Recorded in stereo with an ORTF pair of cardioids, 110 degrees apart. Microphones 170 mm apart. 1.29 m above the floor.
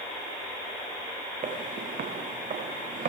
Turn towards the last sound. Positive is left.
turn(degrees=-50)